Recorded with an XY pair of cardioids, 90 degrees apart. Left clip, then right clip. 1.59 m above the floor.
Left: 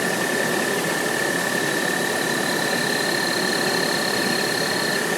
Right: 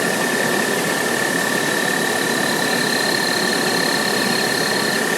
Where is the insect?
25° right, 1.8 m.